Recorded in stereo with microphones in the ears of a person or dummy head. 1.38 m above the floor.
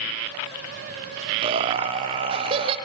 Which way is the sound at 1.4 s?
30° right (ahead or behind).